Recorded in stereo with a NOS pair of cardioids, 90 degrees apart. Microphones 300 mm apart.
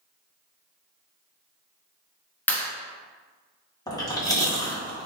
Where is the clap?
5° left, 0.9 m.